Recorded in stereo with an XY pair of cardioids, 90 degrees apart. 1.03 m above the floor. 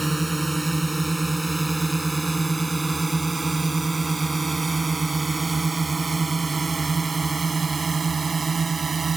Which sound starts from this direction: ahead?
A drone, at 0.0 s.